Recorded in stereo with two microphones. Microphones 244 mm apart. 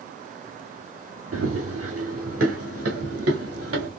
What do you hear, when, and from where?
1.3 s running footsteps: 70° right (ahead or behind), 1.2 m